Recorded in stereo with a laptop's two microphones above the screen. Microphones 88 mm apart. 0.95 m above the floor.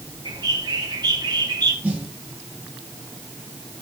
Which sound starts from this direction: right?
A bird, at 0.2 s.